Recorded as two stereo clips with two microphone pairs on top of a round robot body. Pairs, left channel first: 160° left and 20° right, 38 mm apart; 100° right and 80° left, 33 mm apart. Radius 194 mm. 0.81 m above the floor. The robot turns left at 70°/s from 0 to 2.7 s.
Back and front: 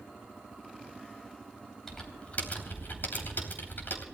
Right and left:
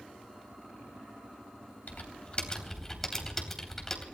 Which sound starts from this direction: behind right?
Typing on a keyboard, at 1.9 s.